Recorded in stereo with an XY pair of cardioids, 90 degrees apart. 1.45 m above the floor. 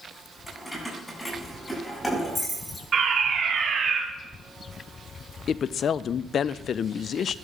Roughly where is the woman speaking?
Ahead left.